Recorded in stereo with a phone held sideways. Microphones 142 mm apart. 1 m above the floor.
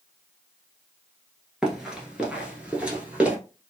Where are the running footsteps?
5° right (ahead or behind), 1.0 m; by 3.4 s 10° right (ahead or behind), 1.1 m.